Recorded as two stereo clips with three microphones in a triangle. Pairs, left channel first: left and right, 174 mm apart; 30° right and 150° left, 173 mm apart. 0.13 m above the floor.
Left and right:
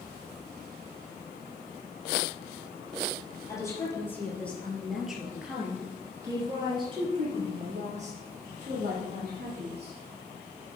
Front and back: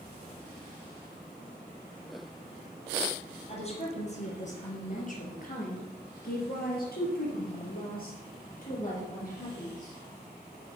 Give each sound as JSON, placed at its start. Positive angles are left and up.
{"t": 3.5, "sound": "a woman speaking", "azimuth_deg": 20, "distance_m": 3.5}